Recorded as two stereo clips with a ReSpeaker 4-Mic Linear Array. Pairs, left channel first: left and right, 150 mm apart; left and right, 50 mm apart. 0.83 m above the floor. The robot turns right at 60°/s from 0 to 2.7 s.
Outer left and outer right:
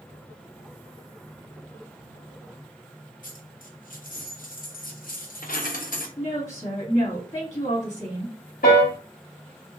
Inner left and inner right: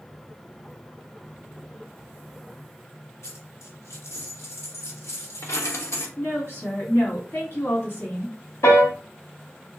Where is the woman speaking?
60° left (ahead or behind), 2 m.